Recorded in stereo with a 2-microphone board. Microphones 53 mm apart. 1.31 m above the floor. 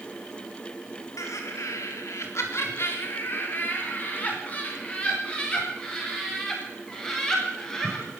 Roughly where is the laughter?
Left.